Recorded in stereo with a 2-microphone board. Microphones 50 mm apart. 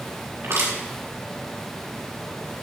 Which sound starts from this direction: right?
Crushing, at 0.4 s.